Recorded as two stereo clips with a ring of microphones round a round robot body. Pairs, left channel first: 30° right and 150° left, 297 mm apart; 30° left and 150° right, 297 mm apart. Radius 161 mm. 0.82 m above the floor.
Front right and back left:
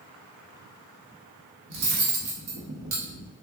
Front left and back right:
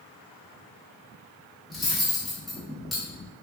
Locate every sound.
1.7 s cutlery clinking: 120° left, 1.0 m